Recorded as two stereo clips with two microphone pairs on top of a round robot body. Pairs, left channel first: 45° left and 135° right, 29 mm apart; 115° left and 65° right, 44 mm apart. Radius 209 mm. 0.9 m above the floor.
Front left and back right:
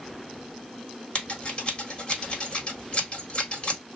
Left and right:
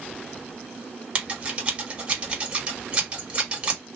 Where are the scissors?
5° right, 1.6 m.